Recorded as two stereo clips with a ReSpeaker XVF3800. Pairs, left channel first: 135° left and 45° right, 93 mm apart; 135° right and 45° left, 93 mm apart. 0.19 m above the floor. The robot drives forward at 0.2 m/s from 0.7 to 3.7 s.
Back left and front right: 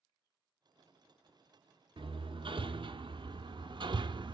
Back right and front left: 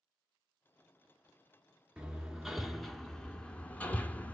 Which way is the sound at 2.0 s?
35° right.